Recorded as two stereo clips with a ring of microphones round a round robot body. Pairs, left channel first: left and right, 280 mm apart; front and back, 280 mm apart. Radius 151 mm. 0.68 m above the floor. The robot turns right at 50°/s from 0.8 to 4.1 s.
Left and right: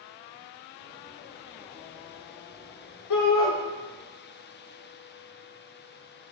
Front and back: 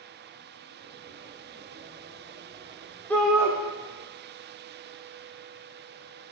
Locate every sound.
3.1 s a shout: 85° left, 1.6 m; by 3.5 s 105° left, 1.6 m